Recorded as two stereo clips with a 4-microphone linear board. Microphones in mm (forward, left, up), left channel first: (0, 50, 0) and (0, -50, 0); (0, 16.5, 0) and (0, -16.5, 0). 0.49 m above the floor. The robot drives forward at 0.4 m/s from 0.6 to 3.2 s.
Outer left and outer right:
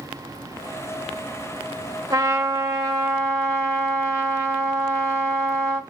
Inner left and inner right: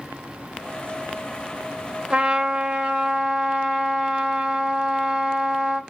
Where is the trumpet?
30° right (ahead or behind), 0.9 m.